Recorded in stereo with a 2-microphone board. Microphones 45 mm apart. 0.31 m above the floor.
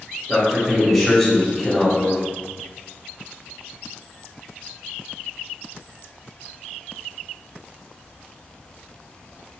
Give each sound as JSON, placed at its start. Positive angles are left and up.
{"t": 0.3, "sound": "a man speaking", "side_deg": 5, "distance_m": 1.6}